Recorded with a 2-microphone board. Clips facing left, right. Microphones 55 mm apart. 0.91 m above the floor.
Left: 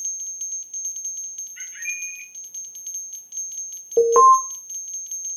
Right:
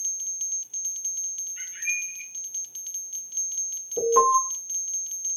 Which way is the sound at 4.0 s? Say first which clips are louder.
Left 8 dB; 40° left (ahead or behind).